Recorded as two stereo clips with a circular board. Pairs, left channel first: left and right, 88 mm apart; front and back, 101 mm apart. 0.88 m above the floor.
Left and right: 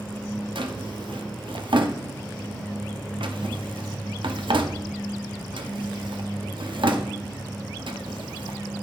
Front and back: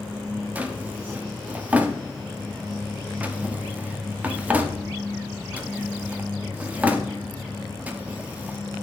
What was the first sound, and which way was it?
A drawer, 105° right.